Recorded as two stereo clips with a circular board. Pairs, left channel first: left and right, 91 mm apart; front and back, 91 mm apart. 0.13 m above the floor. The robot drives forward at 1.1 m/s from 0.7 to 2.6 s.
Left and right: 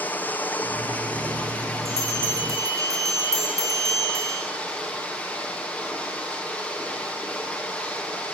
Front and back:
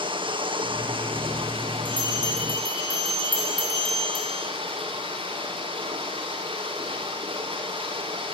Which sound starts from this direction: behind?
Running water, at 0.0 s.